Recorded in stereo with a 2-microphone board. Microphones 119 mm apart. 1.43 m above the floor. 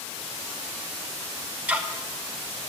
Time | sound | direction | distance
1.7 | ticking | 10° right (ahead or behind) | 0.8 m